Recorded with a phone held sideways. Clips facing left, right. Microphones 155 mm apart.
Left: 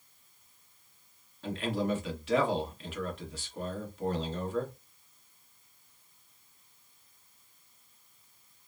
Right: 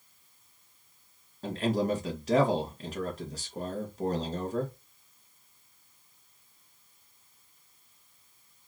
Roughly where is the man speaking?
Right.